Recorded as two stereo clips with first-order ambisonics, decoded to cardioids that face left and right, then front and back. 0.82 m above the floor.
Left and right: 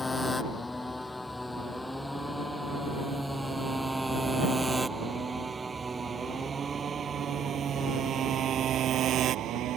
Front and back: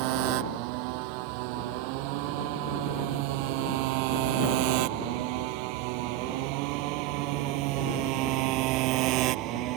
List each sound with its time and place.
0.0 s a motorcycle: 170° left; by 9.8 s 140° right